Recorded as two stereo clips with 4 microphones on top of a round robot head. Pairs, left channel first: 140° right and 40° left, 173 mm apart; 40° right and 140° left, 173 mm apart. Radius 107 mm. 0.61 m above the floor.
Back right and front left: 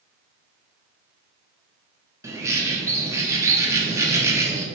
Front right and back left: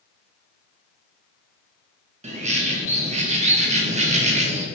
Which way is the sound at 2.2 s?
110° left.